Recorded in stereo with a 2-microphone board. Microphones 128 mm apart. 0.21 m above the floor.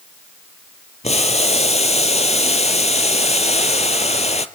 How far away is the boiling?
About 0.8 m.